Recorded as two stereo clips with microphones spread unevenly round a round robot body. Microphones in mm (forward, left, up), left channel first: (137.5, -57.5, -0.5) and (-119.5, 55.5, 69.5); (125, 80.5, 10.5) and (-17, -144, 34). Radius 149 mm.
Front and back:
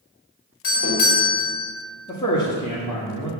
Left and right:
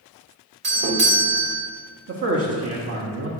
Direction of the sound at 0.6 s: 75° right.